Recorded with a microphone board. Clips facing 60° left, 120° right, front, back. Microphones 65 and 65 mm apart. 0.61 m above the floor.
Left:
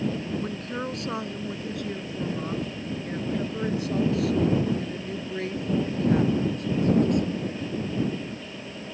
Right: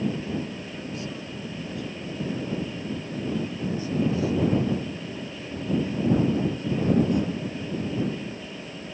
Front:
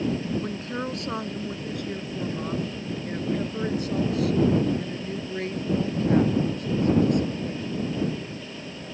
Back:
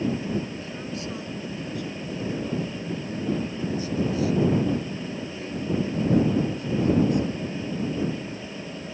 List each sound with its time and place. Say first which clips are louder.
0.4 s a woman speaking: left 4 dB, front 4 dB; 35° left